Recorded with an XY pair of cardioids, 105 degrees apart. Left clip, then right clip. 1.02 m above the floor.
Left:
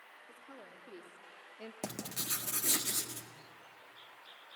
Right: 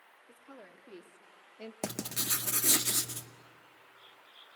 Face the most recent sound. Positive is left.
turn(degrees=-40)